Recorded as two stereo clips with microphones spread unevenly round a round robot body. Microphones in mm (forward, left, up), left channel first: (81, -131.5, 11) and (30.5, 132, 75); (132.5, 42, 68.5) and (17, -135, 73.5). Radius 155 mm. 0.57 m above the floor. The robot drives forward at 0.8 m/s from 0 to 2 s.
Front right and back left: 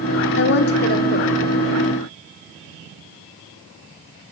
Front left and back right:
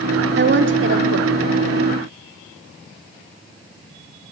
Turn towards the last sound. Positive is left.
turn(degrees=-145)